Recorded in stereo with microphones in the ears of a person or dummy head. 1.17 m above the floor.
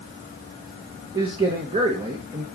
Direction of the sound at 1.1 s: 25° right (ahead or behind).